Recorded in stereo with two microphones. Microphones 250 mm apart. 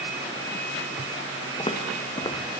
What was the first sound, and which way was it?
Footsteps, 20° left (ahead or behind).